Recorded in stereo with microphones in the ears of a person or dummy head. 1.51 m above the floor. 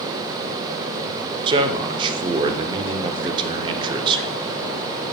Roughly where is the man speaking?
Right.